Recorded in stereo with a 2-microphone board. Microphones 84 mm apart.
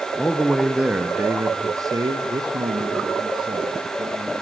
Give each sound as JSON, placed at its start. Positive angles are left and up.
{"t": 0.2, "sound": "a man speaking", "side_deg": 20, "distance_m": 1.1}